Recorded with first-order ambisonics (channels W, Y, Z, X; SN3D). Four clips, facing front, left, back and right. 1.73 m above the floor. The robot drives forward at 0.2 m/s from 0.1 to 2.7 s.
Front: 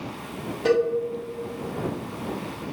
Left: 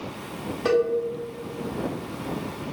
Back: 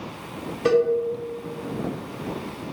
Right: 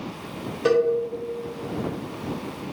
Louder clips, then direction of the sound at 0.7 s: Right 2 dB, back 2 dB; 95° right.